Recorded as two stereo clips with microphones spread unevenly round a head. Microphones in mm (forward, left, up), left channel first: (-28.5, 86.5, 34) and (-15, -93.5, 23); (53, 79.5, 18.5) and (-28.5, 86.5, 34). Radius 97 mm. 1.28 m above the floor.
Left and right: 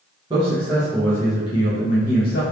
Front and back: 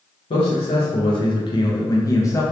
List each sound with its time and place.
0.3 s a man speaking: 15° right, 0.9 m; by 2.4 s 55° left, 1.0 m